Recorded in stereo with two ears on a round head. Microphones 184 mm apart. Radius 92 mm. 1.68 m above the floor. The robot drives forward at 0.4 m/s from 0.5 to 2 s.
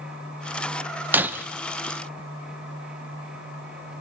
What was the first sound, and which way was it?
Breaking glass, 10° right (ahead or behind).